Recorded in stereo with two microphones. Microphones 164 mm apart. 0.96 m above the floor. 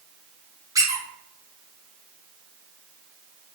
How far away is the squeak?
About 0.7 m.